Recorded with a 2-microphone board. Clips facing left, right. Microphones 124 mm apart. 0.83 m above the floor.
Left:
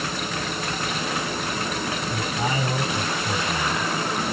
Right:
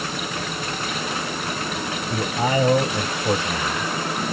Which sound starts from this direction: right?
A man speaking, at 2.1 s.